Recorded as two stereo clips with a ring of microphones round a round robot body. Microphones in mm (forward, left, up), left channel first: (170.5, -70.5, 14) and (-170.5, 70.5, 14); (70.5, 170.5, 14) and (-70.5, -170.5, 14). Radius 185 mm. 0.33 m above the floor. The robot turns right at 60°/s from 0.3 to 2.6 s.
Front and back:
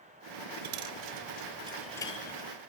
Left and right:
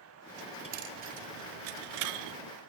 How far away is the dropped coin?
About 0.6 m.